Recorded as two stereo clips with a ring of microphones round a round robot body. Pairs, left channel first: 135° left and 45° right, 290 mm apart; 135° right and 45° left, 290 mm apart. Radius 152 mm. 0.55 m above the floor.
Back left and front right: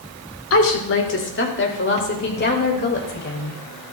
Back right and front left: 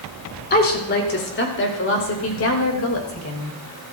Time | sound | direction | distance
0.5 | a woman speaking | 170° left | 2 m